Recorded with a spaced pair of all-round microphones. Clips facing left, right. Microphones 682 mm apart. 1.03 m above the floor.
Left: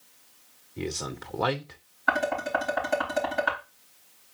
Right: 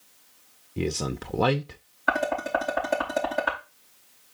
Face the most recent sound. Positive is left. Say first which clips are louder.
# right 2 dB
turn(degrees=-10)  # may be behind; listen again after turning